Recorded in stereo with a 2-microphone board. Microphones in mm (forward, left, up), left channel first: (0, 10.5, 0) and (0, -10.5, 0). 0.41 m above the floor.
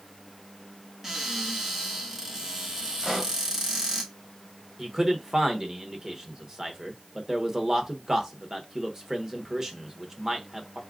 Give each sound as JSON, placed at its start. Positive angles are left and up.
{"t": 1.0, "sound": "a cupboard door", "side_deg": -10, "distance_m": 1.7}
{"t": 3.0, "sound": "a pop", "side_deg": -5, "distance_m": 2.0}
{"t": 4.8, "sound": "a man speaking", "side_deg": -30, "distance_m": 0.9}